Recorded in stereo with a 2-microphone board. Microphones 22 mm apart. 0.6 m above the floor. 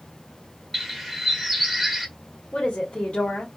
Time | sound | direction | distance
0.7 | a bird | centre (ahead or behind) | 1.0 m
2.5 | a woman speaking | 70° left (ahead or behind) | 1.8 m